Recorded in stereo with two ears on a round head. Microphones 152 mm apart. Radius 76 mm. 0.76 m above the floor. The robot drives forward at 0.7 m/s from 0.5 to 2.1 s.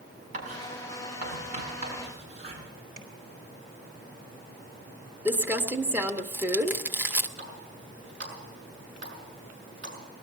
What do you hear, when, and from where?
0.3 s writing: 45° right (ahead or behind), 6 m; by 2.6 s 40° right (ahead or behind), 6.5 m
3.0 s tapping: 60° right (ahead or behind), 3 m
5.2 s crumpling: 10° right (ahead or behind), 0.8 m
7.4 s a running tap: 55° right (ahead or behind), 6.5 m